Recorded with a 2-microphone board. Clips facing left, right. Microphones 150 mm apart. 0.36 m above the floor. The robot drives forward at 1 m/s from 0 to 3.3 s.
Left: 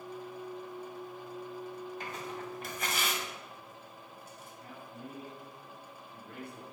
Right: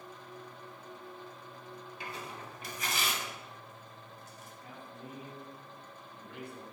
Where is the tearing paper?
45° left (ahead or behind), 2.5 m; by 4.5 s 60° left (ahead or behind), 2 m.